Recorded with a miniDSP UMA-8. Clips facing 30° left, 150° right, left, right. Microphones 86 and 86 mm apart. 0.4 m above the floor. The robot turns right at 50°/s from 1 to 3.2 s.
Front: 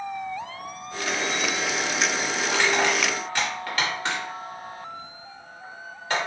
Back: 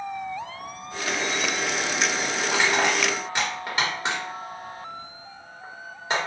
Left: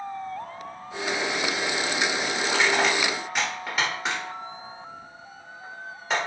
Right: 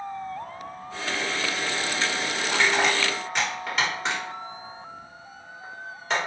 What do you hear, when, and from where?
2.5 s crushing: 130° left, 1.3 m; by 6.2 s 170° left, 1.3 m